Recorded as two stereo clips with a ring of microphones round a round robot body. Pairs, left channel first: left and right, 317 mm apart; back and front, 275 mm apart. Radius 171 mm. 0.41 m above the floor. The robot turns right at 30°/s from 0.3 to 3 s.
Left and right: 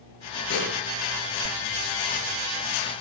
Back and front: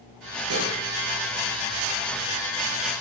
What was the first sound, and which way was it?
Dishes clattering, 35° left.